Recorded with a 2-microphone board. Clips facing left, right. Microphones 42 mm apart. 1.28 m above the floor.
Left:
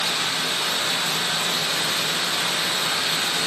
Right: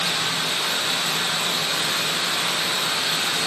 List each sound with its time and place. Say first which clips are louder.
0.0 s running water: even; 25° right (ahead or behind), 4 m